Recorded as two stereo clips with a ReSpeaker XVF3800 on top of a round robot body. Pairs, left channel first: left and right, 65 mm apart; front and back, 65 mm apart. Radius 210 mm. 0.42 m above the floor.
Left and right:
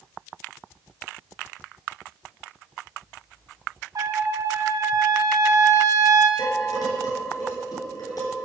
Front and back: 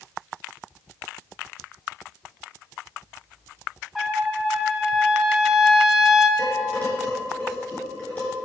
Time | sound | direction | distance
4.0 | a trumpet | 90° right | 2 m
6.4 | dishes clattering | 70° left | 6.5 m